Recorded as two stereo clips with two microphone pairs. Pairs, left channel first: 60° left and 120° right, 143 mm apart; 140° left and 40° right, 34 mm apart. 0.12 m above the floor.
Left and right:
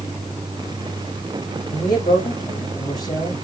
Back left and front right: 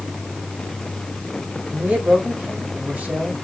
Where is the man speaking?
Straight ahead, 6 m.